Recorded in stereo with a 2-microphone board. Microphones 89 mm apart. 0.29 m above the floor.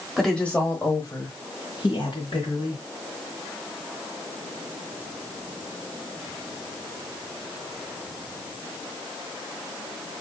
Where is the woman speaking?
Centre (ahead or behind), 1.2 m; by 2.8 s 65° left (ahead or behind), 2.5 m.